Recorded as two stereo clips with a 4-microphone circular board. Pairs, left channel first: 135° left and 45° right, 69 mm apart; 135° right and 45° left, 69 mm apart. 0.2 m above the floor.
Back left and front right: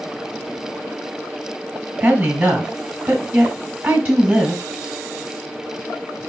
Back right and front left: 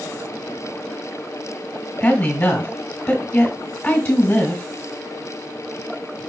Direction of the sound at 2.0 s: 100° right.